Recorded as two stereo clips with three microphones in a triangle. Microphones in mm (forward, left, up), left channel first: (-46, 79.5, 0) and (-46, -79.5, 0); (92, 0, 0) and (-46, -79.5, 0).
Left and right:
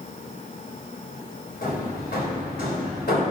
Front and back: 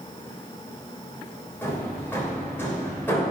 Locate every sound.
1.6 s hammering: 105° left, 3.5 m